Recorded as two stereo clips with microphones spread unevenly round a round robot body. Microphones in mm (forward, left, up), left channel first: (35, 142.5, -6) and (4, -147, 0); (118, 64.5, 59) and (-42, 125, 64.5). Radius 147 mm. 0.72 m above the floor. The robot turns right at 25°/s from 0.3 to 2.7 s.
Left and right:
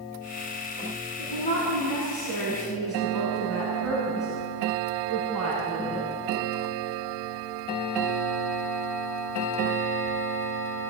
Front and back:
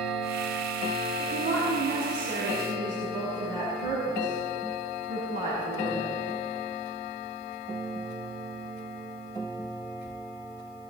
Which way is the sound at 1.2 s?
135° left.